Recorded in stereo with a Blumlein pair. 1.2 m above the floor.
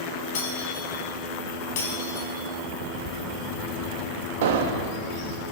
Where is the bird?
25° left, 5.5 m.